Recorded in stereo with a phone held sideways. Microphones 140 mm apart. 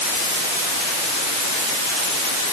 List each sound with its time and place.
Only background noise.